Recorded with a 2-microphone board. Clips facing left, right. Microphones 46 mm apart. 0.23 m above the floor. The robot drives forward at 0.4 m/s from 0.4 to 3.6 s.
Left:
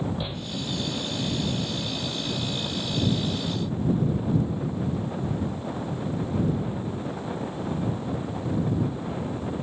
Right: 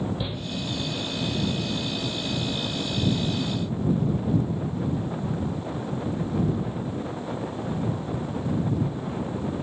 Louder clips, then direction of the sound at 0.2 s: Right 1 dB; centre (ahead or behind).